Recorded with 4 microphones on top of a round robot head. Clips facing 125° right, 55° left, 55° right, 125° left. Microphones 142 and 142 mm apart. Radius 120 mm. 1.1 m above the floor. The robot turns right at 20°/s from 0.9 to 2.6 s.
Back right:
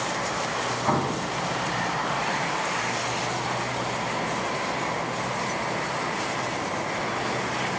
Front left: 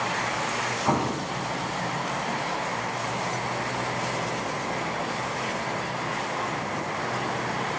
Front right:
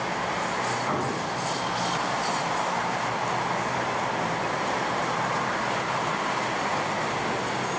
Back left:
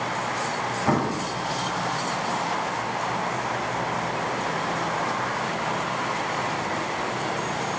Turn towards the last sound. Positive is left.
turn(degrees=165)